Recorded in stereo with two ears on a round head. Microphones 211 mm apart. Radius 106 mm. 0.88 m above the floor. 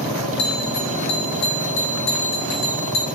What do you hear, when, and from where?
0.4 s a bell: 85° left, 3 m